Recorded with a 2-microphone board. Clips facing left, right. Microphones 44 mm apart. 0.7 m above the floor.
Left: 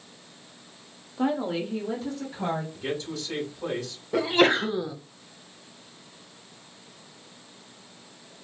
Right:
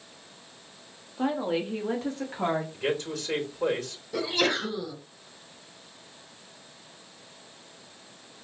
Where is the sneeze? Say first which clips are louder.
Left 6 dB; 30° left (ahead or behind), 0.9 m.